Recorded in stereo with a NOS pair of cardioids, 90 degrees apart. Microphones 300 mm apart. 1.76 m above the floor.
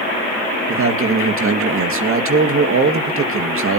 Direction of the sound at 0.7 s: 45° right.